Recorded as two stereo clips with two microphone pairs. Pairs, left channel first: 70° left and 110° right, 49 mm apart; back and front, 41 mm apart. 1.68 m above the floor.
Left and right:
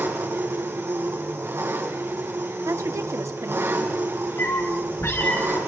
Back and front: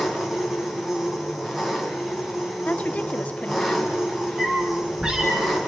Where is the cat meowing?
65° left, 5.5 m.